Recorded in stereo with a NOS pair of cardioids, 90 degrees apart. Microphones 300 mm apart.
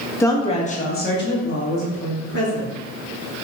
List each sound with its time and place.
0.2 s a woman speaking: 10° left, 0.9 m; by 2.8 s 55° left, 2 m